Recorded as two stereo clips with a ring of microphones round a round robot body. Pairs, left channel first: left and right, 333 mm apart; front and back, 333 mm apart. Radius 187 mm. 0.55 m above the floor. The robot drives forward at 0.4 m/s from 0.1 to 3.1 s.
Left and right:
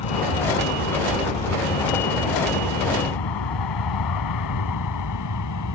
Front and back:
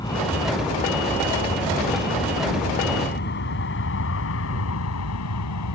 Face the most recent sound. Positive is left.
turn(degrees=45)